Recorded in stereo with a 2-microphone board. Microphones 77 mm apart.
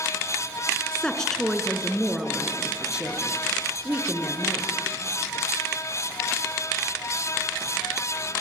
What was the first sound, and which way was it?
A woman speaking, 10° left (ahead or behind).